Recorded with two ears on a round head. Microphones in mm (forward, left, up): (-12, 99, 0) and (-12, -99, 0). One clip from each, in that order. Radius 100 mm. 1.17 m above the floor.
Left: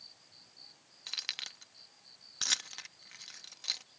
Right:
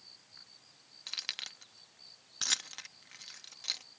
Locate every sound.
1.1 s keys jangling: 5° left (ahead or behind)